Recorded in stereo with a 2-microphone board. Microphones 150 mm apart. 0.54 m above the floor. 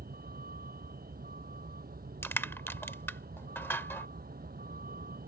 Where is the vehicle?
85° right.